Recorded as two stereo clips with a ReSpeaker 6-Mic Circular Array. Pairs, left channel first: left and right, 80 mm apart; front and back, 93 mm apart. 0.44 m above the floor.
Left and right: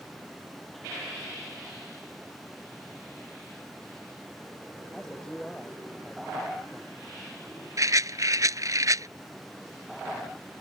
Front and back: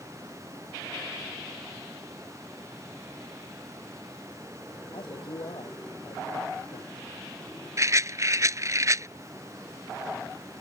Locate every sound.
4.9 s a man speaking: 10° left
7.8 s a rattle: 130° right